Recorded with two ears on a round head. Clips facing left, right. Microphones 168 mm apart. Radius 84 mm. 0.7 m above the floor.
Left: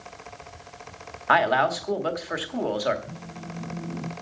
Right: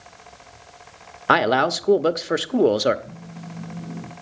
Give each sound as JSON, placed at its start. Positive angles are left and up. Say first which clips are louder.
{"t": 1.3, "sound": "a man speaking", "louder": "right 3 dB", "side_deg": -50, "distance_m": 0.9}
{"t": 3.0, "sound": "a phone buzzing", "louder": "even", "side_deg": 0, "distance_m": 3.5}